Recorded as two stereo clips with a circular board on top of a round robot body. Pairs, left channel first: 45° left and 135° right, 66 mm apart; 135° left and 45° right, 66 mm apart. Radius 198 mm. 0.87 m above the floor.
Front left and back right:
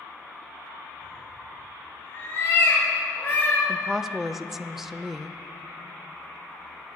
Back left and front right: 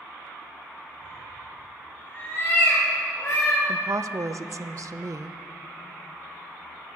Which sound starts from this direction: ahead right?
A woman speaking, at 3.7 s.